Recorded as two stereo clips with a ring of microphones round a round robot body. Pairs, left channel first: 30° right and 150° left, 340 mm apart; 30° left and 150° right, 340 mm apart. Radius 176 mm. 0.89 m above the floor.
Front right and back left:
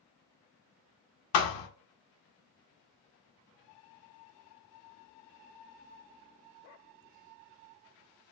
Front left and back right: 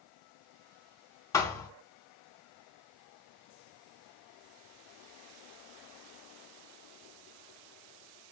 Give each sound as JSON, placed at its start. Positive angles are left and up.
{"t": 1.3, "sound": "a thud", "azimuth_deg": -50, "distance_m": 0.5}